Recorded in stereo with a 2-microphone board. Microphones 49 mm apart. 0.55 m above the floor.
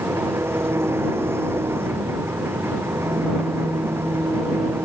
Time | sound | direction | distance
0.0 | an engine running | 55° right (ahead or behind) | ?